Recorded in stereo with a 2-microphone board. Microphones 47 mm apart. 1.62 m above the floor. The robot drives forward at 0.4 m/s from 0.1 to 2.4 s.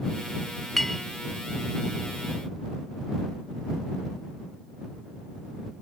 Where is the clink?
5° left (ahead or behind).